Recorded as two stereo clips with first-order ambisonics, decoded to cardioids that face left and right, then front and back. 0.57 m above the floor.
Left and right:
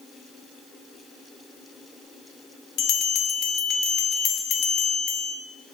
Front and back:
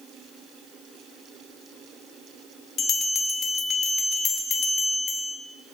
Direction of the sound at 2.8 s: 55° left.